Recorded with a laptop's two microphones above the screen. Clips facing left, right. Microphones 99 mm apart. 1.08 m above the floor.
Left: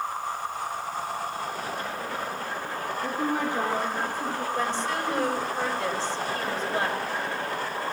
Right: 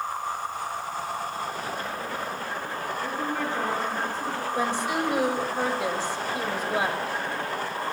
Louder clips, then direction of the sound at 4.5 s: Right 4 dB; 15° right (ahead or behind).